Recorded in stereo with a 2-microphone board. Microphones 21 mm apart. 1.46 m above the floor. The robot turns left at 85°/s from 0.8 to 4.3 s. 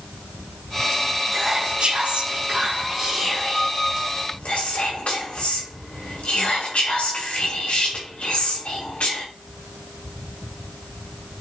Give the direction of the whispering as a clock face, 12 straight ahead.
1 o'clock.